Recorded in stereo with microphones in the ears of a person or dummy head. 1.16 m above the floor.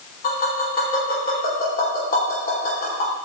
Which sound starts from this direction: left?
Tapping, at 0.2 s.